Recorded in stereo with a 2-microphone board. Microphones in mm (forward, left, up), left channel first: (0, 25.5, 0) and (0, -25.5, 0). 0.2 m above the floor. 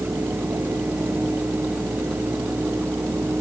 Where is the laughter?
No laughter in this recording.